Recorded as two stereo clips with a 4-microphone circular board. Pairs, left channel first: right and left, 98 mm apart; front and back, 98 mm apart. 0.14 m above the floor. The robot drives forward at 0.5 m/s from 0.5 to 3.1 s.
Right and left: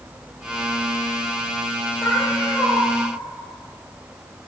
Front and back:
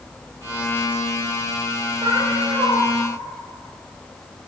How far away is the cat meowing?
About 8.5 m.